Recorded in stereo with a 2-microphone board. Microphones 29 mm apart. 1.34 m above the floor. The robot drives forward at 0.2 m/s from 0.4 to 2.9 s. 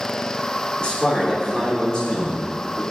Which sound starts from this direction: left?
A man speaking, at 0.8 s.